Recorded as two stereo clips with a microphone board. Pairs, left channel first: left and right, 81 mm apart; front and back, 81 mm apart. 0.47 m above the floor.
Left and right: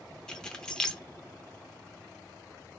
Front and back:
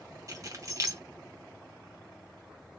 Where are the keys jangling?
170° left, 0.6 m.